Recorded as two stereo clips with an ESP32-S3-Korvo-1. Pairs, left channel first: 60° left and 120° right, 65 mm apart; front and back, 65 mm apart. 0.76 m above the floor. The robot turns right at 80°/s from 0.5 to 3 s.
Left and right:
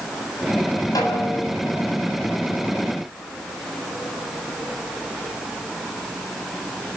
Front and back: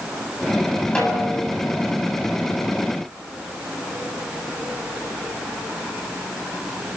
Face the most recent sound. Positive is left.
turn(degrees=-120)